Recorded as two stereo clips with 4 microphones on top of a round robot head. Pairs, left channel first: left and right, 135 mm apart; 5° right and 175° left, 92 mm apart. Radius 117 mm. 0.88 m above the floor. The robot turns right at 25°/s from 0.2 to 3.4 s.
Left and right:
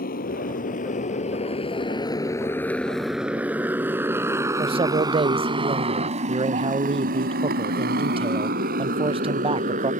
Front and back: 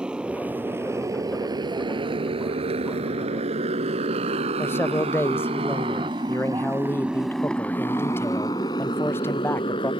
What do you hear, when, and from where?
0.0 s a motorcycle: 95° left; by 10.0 s 50° right
4.6 s a man speaking: 60° right